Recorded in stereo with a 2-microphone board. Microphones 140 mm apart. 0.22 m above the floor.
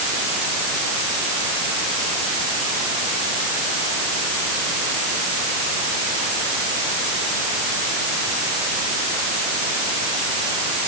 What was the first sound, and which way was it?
Only background noise.